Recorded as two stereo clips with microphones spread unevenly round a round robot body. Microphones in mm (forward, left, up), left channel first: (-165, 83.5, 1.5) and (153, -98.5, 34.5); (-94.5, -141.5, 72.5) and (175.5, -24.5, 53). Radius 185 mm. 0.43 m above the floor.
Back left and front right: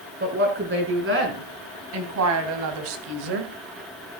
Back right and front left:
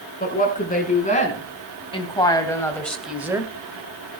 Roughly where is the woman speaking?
Right.